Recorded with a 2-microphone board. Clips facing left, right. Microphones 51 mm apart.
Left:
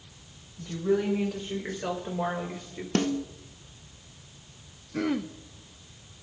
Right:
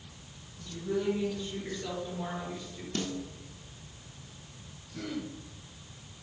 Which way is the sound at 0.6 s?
70° left (ahead or behind).